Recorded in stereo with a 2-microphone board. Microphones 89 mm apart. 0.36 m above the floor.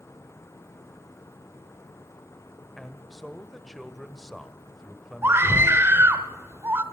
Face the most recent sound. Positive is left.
turn(degrees=-25)  # may be behind; listen again after turning